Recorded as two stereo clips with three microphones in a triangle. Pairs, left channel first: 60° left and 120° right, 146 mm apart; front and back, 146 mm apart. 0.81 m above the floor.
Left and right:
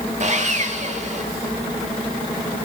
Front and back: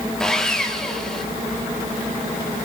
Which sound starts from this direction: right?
Sawing, at 0.2 s.